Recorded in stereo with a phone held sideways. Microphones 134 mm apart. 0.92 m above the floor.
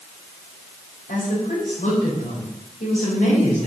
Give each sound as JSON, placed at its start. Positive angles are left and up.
{"t": 1.1, "sound": "a woman speaking", "side_deg": 80, "distance_m": 4.5}